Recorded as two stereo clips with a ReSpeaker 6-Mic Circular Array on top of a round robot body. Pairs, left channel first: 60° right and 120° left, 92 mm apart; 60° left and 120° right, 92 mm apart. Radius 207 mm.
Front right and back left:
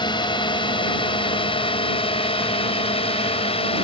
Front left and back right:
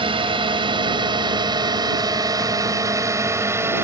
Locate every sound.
0.0 s a drone: 95° right; by 3.8 s 55° right